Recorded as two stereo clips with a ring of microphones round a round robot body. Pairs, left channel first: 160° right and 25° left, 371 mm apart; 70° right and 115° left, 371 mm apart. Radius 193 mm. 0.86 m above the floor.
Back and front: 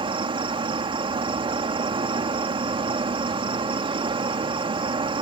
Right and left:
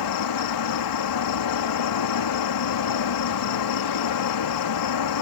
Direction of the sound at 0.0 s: 50° right.